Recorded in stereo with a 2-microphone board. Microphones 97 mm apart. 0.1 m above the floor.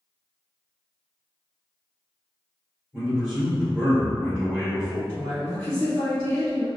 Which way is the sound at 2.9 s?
5° right (ahead or behind).